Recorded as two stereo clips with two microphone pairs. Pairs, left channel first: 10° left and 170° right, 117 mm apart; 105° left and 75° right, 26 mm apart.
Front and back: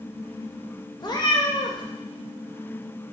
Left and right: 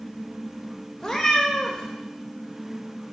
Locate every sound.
1.0 s a cat meowing: 45° left, 0.6 m